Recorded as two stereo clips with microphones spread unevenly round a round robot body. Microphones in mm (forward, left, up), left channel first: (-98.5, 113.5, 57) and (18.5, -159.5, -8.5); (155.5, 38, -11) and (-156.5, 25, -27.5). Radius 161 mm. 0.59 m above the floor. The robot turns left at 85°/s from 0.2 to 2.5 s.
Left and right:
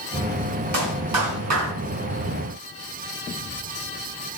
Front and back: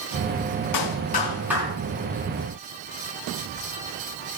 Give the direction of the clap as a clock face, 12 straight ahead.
1 o'clock.